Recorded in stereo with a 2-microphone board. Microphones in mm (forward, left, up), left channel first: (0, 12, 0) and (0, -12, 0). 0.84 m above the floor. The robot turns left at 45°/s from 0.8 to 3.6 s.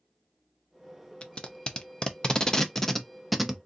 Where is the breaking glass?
No breaking glass in this recording.